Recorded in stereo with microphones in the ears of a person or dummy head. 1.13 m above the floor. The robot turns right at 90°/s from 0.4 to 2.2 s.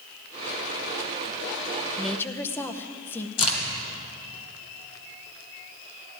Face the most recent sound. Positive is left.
turn(degrees=35)  # may be behind; listen again after turning